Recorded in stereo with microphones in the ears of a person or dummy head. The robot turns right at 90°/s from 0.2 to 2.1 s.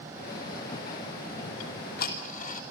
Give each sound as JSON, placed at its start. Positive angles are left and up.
{"t": 1.6, "sound": "ticking", "side_deg": 85, "distance_m": 2.5}